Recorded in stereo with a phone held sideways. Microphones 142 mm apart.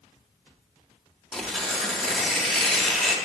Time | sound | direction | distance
1.3 | tearing paper | 5° left (ahead or behind) | 0.6 m